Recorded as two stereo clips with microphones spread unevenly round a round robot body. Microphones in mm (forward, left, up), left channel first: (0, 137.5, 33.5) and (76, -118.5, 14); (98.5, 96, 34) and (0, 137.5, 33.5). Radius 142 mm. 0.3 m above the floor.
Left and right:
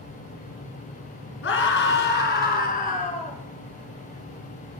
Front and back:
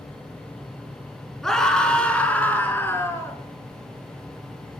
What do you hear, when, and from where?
1.4 s a scream: 65° left, 5 m; by 3.4 s 40° left, 5 m